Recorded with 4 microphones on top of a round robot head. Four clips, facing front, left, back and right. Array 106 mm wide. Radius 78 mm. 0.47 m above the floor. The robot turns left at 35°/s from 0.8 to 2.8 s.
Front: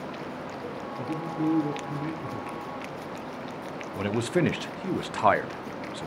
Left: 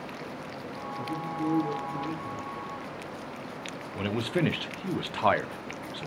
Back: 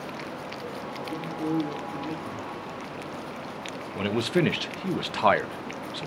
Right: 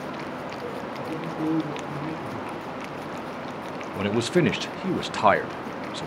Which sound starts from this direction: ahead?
A man speaking, at 1.0 s.